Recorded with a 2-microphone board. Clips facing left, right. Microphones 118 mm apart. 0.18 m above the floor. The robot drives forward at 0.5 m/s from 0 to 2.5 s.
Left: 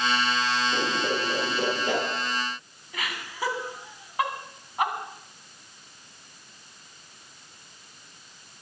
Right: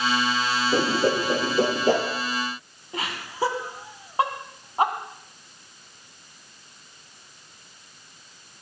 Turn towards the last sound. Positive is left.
turn(degrees=-30)  # may be behind; listen again after turning